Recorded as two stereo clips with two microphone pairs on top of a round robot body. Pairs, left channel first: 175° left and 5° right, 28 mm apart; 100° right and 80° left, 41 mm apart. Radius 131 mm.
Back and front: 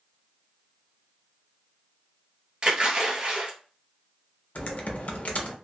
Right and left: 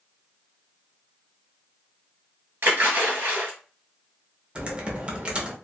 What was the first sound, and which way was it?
A splash, 50° left.